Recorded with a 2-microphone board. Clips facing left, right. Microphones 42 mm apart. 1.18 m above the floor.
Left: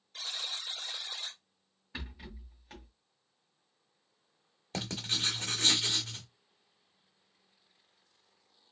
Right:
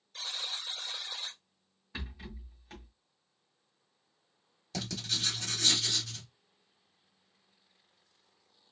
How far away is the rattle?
About 2.0 m.